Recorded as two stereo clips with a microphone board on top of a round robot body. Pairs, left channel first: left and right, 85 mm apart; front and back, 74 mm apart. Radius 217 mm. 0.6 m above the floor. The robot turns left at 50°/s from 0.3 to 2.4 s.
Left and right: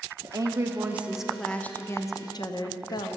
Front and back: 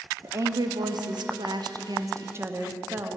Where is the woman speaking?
130° right, 1.0 m; by 3.2 s 125° left, 1.0 m.